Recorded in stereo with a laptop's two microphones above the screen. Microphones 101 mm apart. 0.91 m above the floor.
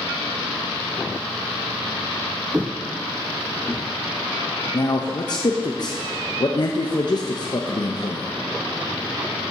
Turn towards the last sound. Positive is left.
turn(degrees=45)  # may be behind; listen again after turning